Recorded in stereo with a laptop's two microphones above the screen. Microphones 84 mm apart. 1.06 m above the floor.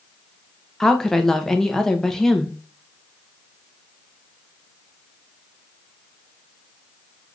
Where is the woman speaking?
5° left (ahead or behind), 0.6 m.